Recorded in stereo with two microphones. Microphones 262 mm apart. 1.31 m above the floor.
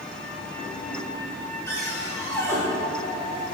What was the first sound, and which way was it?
A cupboard door, 10° left (ahead or behind).